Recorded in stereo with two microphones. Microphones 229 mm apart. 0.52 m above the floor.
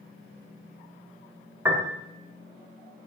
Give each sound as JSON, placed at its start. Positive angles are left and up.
{"t": 1.6, "sound": "a piano", "side_deg": -10, "distance_m": 0.8}